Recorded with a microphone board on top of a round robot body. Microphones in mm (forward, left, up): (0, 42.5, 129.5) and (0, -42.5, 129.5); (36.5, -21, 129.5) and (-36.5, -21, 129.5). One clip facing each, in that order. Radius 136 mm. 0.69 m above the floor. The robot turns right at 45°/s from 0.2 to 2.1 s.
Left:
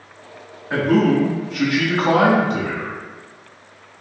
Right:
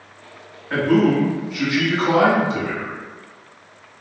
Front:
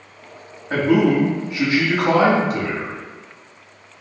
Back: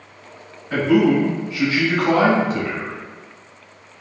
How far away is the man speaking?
About 1.5 m.